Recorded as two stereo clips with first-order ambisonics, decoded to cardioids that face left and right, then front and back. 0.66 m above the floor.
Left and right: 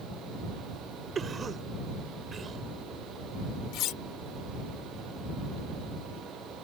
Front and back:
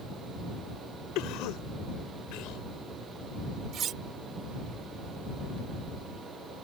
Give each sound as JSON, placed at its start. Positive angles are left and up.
{"t": 1.1, "sound": "a cough", "azimuth_deg": -20}
{"t": 3.7, "sound": "cutlery clinking", "azimuth_deg": 125}